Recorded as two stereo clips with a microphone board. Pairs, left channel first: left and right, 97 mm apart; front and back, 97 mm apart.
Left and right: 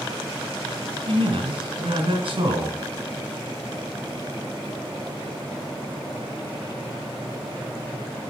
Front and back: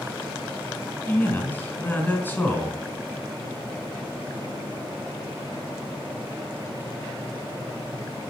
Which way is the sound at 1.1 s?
70° right.